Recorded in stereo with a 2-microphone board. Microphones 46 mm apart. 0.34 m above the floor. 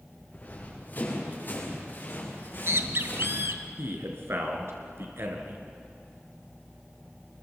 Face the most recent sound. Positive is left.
turn(degrees=-65)  # may be behind; listen again after turning